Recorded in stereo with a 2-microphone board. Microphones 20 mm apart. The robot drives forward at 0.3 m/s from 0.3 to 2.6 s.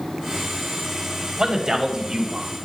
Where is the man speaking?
35° right (ahead or behind), 1.5 m; by 2.5 s 30° right (ahead or behind), 1.5 m.